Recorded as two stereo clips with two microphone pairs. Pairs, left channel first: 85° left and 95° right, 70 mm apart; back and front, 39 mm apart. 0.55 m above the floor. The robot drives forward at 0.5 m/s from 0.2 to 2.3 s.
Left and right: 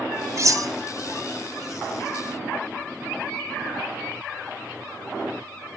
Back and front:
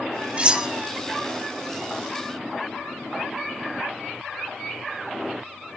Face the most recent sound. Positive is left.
turn(degrees=-140)